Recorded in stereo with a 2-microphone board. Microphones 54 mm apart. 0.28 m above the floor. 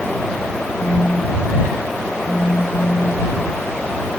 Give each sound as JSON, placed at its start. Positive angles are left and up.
{"t": 0.8, "sound": "a phone buzzing", "side_deg": 60}